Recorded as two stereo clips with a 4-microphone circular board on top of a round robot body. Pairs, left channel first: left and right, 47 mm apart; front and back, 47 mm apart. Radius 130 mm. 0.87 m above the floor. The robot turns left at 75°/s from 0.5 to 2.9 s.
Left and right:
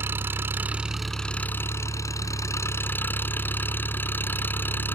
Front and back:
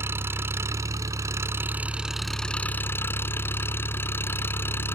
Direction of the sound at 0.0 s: 140° right.